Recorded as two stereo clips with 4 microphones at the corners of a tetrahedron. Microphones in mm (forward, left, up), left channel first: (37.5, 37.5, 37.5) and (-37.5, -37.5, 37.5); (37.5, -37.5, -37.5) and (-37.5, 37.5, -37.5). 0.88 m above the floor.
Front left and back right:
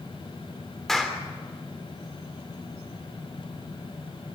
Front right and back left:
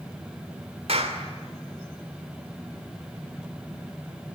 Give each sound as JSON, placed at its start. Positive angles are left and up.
{"t": 0.9, "sound": "a clap", "azimuth_deg": 135, "distance_m": 3.0}